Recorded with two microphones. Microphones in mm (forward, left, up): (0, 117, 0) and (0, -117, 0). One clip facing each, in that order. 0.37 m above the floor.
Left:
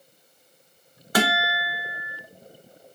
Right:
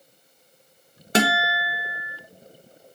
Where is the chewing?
No chewing in this recording.